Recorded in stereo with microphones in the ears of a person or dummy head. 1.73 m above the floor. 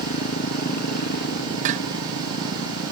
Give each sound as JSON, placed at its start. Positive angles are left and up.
{"t": 0.0, "sound": "a motorcycle", "side_deg": 60}
{"t": 1.6, "sound": "dishes clattering", "side_deg": -35}